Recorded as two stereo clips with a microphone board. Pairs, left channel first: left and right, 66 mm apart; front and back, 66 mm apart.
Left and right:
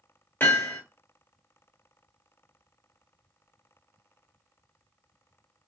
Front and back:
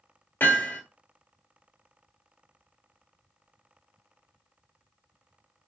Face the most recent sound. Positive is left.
turn(degrees=45)